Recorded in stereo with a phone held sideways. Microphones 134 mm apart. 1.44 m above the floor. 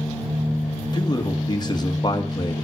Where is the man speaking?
30° left (ahead or behind), 1.9 m.